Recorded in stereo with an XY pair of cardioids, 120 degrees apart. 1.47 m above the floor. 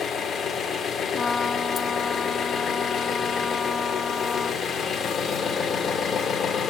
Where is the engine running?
50° left, 1.7 m.